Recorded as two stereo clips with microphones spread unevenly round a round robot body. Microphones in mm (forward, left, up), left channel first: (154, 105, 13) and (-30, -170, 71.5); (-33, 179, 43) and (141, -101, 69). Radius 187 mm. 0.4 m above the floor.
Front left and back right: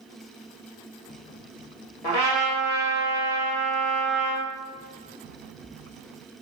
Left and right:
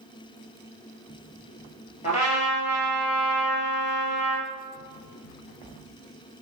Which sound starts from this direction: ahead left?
A trumpet, at 2.0 s.